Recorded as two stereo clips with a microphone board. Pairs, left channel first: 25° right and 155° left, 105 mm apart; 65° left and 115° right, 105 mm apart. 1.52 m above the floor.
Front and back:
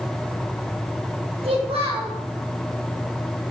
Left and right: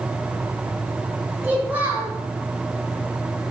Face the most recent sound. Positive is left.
turn(degrees=175)